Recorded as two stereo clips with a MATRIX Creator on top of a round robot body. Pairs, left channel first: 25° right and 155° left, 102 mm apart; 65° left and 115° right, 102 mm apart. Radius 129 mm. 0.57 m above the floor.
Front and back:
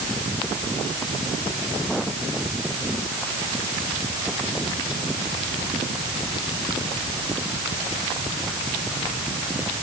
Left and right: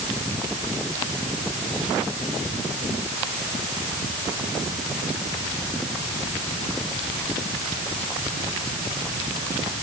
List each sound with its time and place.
Only background noise.